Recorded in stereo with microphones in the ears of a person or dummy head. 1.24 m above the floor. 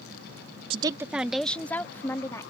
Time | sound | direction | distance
0.7 | a woman speaking | 35° right (ahead or behind) | ?